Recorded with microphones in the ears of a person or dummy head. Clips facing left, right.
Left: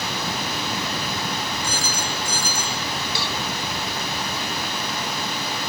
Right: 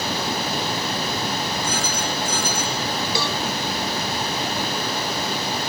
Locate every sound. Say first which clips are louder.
1.6 s a phone ringing: right 3 dB; 35° left (ahead or behind)
3.1 s a cowbell: right 4 dB; 80° right